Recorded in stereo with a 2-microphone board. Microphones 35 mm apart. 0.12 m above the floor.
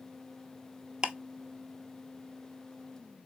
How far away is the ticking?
About 0.6 m.